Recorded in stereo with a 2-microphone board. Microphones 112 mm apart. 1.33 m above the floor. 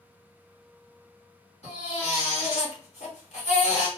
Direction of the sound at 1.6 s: 80° left.